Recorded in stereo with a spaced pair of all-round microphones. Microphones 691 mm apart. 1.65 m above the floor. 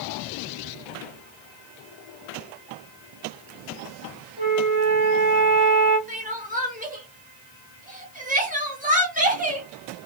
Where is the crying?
10° right (ahead or behind), 1.0 m.